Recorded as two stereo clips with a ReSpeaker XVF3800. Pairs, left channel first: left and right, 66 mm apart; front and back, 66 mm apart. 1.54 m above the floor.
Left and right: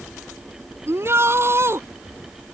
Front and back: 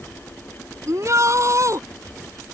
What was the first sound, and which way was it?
A shout, 140° right.